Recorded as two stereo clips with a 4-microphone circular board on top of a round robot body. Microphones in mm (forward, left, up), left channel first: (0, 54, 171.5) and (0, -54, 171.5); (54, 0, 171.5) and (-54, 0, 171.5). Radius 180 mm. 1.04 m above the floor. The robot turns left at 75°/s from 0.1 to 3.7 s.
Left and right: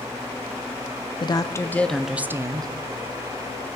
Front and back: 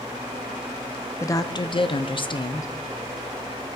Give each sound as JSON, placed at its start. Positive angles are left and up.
{"t": 1.2, "sound": "a woman speaking", "azimuth_deg": 60, "distance_m": 0.8}